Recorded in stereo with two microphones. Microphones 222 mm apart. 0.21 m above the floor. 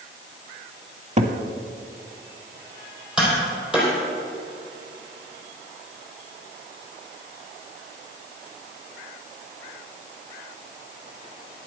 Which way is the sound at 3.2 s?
5° right (ahead or behind).